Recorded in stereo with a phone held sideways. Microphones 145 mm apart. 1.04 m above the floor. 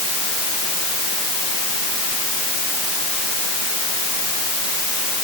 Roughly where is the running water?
I don't hear running water.